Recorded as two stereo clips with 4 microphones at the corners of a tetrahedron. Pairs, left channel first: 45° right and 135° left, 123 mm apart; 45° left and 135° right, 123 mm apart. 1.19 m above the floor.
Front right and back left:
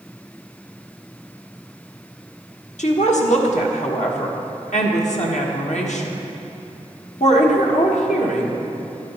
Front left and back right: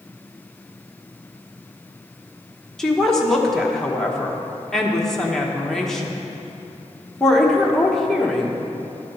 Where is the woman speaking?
40° right, 1.2 m.